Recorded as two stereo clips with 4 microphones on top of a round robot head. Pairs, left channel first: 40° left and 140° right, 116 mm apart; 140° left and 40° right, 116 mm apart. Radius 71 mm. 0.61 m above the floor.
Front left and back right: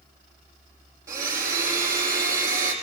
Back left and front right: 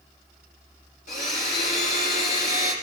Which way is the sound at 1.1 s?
155° left.